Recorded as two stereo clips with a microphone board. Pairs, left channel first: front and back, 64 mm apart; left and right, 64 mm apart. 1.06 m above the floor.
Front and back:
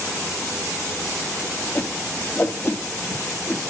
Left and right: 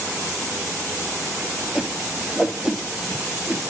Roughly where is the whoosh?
Ahead.